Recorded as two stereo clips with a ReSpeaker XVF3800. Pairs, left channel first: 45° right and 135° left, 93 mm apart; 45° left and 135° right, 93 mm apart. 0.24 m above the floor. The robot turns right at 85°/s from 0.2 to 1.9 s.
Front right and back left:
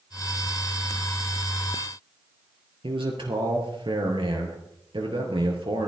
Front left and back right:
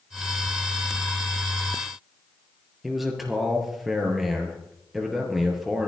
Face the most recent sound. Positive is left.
turn(degrees=135)